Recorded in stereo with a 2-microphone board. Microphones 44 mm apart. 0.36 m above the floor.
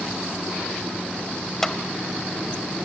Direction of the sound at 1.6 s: 10° left (ahead or behind).